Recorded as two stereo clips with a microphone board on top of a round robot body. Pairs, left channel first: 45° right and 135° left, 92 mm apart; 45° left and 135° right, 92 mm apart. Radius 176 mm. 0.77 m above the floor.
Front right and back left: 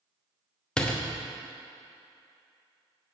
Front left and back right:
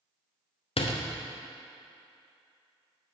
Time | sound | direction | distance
0.8 | a door slam | 35° left | 0.9 m